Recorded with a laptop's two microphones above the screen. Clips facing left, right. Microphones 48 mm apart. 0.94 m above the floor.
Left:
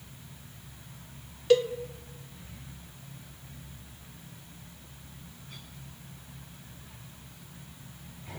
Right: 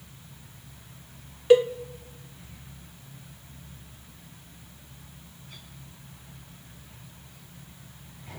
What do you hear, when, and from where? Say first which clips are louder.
1.5 s a cowbell: right 5 dB; 20° right (ahead or behind), 1.1 m